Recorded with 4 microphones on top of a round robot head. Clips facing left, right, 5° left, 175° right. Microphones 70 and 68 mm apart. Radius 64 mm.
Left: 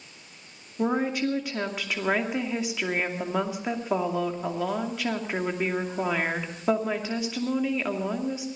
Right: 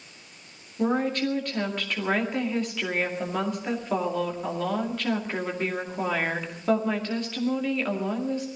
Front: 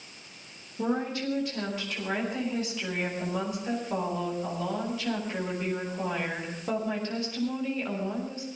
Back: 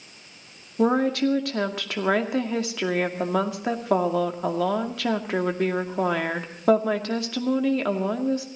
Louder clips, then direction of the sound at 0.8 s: Right 1 dB, back 9 dB; 170° left.